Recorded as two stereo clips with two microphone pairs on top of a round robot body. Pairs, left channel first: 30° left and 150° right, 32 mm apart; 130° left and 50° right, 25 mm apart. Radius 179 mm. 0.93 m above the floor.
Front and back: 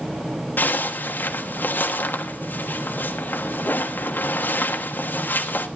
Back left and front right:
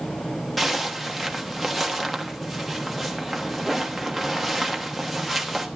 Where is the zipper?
45° left, 1.1 m.